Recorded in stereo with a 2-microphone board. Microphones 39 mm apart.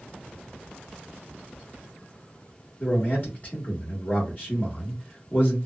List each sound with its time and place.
2.8 s a man speaking: 40° left (ahead or behind), 1.3 m